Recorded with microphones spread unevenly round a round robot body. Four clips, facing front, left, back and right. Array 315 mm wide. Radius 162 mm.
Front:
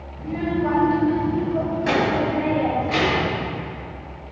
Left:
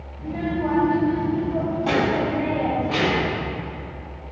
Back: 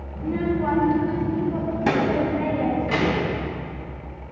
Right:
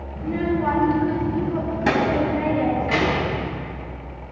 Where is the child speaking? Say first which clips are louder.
Right 3 dB, even; 125° right, 2.0 m; by 3.4 s 135° right, 4 m.